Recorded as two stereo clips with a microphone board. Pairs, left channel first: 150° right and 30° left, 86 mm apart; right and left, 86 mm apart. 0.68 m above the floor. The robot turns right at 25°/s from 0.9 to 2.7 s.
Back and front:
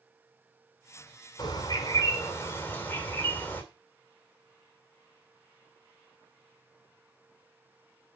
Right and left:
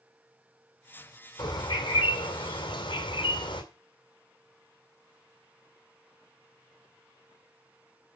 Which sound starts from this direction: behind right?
A bird, at 1.4 s.